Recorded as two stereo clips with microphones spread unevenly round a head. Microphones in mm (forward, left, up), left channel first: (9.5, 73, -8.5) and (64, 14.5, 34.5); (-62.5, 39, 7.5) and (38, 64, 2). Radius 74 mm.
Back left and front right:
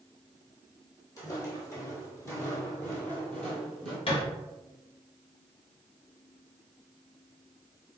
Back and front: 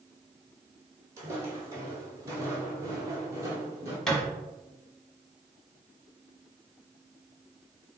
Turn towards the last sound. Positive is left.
turn(degrees=115)